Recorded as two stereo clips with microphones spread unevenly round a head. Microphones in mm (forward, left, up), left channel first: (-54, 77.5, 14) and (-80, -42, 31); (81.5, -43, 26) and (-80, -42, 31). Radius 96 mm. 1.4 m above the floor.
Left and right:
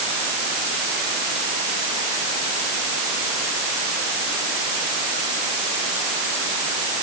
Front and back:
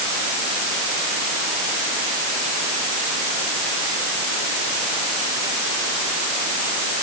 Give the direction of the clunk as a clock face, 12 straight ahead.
No clunk in this recording.